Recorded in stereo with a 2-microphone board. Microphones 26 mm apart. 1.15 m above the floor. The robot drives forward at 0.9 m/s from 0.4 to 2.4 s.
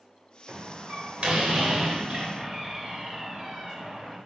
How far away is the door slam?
About 3 m.